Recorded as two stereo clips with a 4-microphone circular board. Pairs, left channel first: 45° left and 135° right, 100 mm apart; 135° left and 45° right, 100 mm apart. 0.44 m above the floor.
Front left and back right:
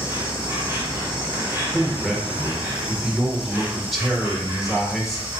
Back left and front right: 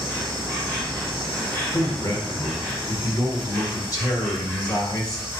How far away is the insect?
About 2.5 m.